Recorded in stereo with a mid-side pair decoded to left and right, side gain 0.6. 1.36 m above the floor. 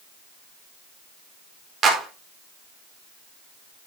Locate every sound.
1.8 s a clap: 40° right, 4.5 m